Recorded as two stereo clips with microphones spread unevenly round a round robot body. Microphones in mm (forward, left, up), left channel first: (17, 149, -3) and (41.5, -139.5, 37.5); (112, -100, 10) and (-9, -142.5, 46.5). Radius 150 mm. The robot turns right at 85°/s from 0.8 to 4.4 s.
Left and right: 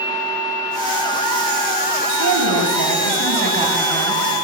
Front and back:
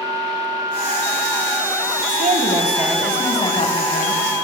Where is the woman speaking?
145° right, 3 m; by 4.2 s 35° left, 3 m.